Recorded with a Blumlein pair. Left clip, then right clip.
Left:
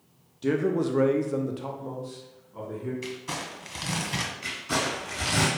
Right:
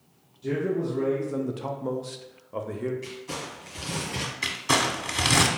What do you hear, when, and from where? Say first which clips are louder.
0.4 s a man speaking: left 2 dB; 60° left, 0.7 m; by 2.9 s 50° right, 1.0 m
3.0 s crumpling: left 1 dB; 70° left, 1.5 m
4.4 s crumpling: right 8 dB; 35° right, 1.3 m